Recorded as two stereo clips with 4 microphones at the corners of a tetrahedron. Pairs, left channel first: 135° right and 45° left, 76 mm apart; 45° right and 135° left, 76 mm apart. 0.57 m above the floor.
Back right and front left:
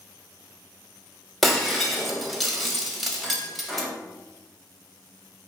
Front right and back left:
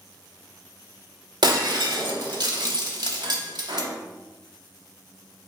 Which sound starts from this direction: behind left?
Breaking glass, at 1.4 s.